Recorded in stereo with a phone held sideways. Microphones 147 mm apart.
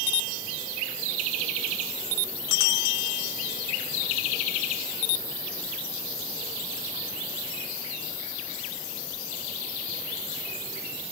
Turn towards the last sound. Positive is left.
No sound to turn to.